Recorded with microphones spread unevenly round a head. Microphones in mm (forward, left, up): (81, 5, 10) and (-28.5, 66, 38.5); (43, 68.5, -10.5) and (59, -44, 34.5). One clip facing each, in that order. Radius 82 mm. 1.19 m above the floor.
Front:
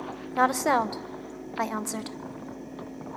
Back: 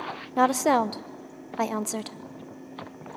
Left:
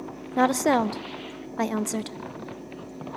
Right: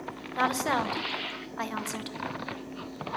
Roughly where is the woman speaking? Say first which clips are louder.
Back 2 dB, left 7 dB; left.